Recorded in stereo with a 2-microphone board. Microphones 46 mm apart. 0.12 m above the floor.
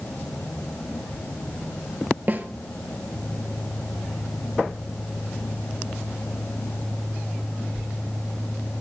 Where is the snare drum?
40° right (ahead or behind), 0.8 m.